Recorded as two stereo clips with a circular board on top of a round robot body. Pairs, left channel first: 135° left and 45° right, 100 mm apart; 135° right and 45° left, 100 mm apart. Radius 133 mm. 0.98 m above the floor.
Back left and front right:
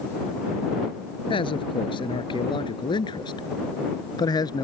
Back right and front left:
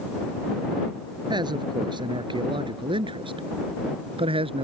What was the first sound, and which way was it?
A man speaking, 95° left.